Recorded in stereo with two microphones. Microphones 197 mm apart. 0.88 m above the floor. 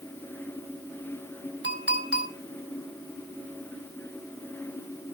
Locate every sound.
1.6 s a clink: 60° right (ahead or behind), 3.5 m